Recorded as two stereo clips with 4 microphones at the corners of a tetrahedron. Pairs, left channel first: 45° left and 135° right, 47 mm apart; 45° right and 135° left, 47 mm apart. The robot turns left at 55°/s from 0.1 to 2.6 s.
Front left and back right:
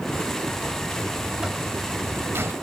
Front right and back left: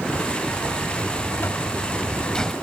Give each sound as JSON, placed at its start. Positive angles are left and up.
{"t": 0.5, "sound": "a buzzer", "azimuth_deg": -15, "distance_m": 1.4}